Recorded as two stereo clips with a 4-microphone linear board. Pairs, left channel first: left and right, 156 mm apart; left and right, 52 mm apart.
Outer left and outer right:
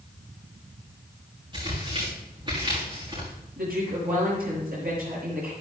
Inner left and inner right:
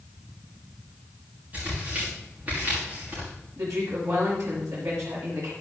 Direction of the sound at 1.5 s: 30° right (ahead or behind).